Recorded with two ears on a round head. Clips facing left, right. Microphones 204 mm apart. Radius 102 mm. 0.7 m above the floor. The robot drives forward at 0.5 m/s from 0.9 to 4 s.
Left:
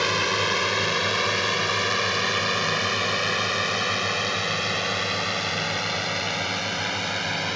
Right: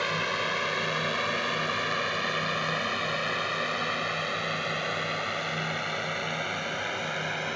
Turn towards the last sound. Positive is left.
turn(degrees=55)  # may be behind; listen again after turning